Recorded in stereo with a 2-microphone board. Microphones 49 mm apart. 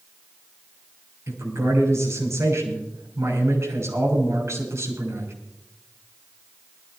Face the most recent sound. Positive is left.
turn(degrees=-75)  # may be behind; listen again after turning